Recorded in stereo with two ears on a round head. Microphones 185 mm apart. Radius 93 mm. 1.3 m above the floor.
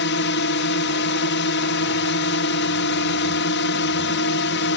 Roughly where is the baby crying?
I don't hear a baby crying.